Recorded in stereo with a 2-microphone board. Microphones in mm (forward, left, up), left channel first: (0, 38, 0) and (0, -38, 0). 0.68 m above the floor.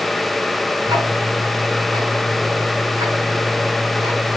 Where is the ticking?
85° right, 6 m.